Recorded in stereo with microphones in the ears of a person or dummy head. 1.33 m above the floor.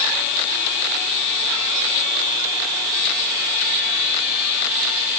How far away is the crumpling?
I don't hear crumpling.